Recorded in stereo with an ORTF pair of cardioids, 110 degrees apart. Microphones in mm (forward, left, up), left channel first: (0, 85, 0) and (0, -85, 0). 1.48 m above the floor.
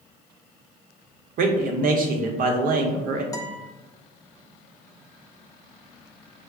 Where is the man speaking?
60° right, 0.7 m.